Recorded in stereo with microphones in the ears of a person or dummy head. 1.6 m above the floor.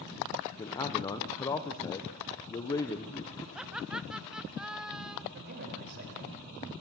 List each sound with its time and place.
0.6 s a man speaking: 20° left (ahead or behind), 1.1 m
3.5 s laughter: centre (ahead or behind), 0.7 m
5.3 s a man speaking: 60° right (ahead or behind), 6 m